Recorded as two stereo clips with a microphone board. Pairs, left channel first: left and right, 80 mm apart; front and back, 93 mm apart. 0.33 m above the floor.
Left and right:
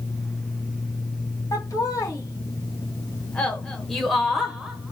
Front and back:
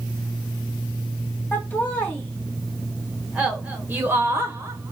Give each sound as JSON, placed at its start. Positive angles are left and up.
{"t": 1.5, "sound": "laughter", "azimuth_deg": 65, "distance_m": 1.7}